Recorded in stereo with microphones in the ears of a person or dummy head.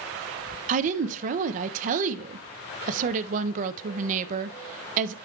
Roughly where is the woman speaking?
Right.